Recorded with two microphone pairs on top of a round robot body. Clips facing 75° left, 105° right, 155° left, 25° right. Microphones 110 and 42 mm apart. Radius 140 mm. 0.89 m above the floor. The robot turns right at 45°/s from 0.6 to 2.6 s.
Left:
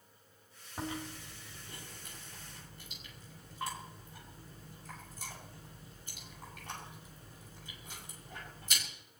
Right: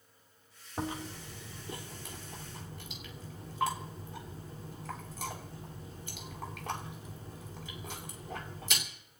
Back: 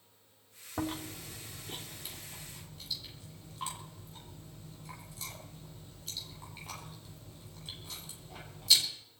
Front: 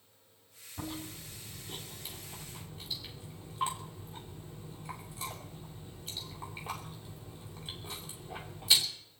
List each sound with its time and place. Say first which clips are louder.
0.8 s chewing: right 3 dB, back 5 dB; straight behind, 2.5 m; by 8.9 s 100° right, 2.5 m